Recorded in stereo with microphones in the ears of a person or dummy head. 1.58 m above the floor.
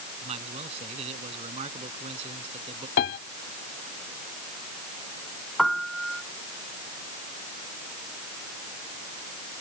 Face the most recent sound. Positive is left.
turn(degrees=0)  # may be behind; listen again after turning